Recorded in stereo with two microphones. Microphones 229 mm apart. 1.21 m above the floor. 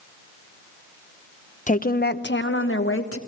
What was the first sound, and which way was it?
A woman speaking, 30° left (ahead or behind).